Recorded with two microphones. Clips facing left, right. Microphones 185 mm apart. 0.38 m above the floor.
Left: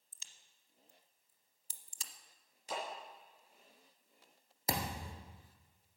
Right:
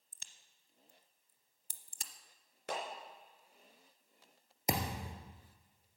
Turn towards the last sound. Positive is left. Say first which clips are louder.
# right 2 dB
turn(degrees=-20)  # may be behind; listen again after turning